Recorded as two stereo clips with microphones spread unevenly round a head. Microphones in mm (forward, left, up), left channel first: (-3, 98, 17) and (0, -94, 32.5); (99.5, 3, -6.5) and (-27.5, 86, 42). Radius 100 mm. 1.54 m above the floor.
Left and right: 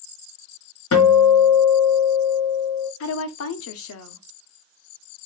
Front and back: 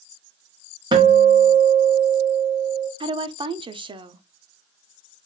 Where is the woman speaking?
85° left, 0.6 m.